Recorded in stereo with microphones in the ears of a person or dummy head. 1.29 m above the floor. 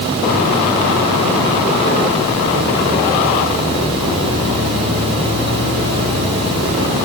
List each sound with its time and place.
Only background noise.